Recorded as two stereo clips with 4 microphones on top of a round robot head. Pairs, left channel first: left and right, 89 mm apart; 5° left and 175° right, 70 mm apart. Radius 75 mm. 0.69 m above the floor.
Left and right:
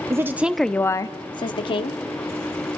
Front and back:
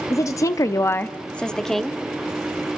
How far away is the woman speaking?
About 1.1 m.